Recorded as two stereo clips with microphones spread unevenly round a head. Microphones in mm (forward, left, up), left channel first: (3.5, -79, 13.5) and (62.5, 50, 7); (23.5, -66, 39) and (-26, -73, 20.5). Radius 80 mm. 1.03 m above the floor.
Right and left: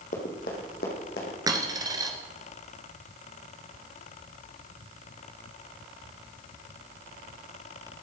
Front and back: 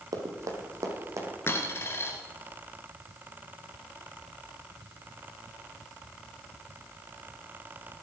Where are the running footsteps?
155° right, 2.5 m; by 1.4 s 140° right, 3.5 m.